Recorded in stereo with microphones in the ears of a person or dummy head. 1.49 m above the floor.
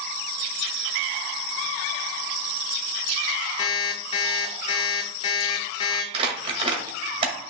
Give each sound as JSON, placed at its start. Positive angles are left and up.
{"t": 3.6, "sound": "an alarm clock", "side_deg": 30, "distance_m": 1.6}
{"t": 6.1, "sound": "crumpling", "side_deg": -30, "distance_m": 2.0}